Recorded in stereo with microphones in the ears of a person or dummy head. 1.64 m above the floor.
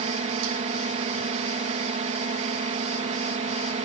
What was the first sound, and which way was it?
A drone, 35° right (ahead or behind).